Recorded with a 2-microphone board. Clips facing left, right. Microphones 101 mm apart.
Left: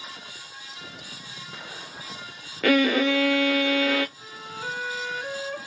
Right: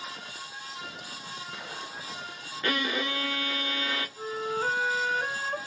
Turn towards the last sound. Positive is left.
turn(degrees=-45)  # may be behind; listen again after turning